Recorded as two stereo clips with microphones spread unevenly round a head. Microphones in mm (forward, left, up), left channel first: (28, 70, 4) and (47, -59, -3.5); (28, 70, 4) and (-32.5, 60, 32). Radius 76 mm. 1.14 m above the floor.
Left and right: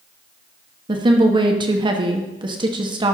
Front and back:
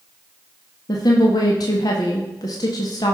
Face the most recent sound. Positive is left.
turn(degrees=-25)